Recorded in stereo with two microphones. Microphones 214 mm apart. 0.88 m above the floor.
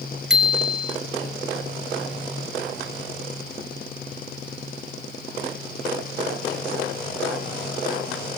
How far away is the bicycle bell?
About 2 m.